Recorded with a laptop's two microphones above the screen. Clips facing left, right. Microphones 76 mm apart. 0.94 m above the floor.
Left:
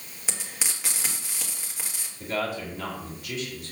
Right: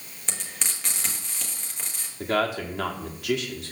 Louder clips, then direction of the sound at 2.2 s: Right 5 dB; 80° right.